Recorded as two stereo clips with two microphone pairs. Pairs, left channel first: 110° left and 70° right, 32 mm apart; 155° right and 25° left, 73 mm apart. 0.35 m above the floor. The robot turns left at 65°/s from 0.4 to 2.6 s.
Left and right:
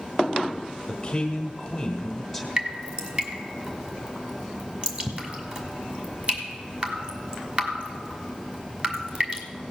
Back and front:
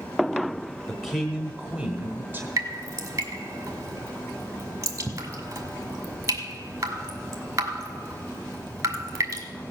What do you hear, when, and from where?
0.9 s a man speaking: 120° left, 1.4 m; by 2.5 s 15° left, 1.4 m
2.6 s dripping: 15° right, 2 m; by 9.4 s 20° right, 2 m